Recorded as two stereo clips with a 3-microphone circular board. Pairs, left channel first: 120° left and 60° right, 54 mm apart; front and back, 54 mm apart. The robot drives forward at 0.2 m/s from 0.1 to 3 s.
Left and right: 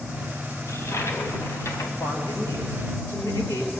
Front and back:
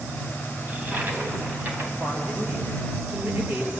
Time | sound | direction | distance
0.7 | a toilet flushing | 125° left | 2.5 m
2.0 | a woman speaking | 120° left | 7.5 m